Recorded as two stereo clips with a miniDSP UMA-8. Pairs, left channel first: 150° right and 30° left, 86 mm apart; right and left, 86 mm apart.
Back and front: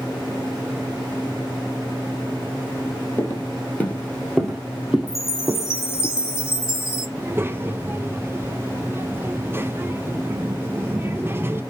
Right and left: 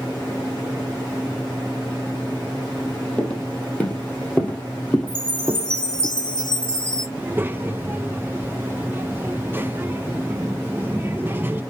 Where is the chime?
160° right, 1.0 m.